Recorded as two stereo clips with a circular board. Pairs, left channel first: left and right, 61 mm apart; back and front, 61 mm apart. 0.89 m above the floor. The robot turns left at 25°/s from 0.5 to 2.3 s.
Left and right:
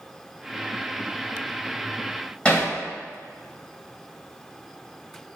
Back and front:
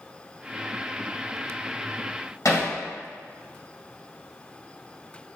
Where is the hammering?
160° left, 1.8 m.